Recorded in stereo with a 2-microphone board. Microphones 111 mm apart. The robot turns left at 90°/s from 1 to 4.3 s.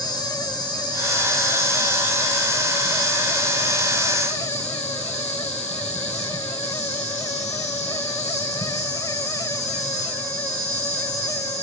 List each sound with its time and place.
0.0 s an insect: 35° left, 1.5 m; by 11.6 s 100° left, 1.5 m